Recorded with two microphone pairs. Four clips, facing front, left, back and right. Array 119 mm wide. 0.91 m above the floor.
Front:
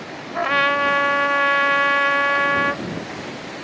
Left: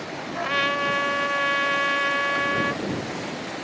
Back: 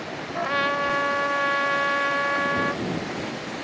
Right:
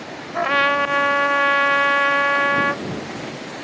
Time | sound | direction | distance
0.3 | a trumpet | 60° right | ?